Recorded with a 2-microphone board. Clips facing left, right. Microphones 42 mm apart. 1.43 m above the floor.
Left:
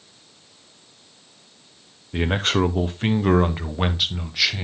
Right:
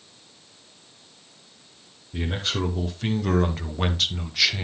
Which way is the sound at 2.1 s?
60° left (ahead or behind).